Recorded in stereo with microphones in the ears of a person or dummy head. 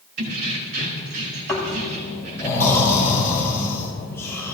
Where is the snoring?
15° left (ahead or behind), 5.5 m.